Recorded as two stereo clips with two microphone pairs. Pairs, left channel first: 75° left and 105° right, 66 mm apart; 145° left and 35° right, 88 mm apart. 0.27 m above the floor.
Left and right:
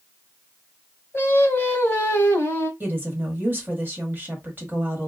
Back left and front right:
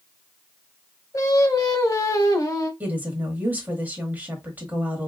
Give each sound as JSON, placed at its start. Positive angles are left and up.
{"t": 1.1, "sound": "singing", "azimuth_deg": 115, "distance_m": 0.9}
{"t": 2.8, "sound": "a woman speaking", "azimuth_deg": -90, "distance_m": 1.3}